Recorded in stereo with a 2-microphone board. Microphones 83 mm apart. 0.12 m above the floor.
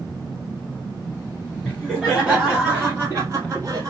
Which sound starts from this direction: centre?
Laughter, at 1.6 s.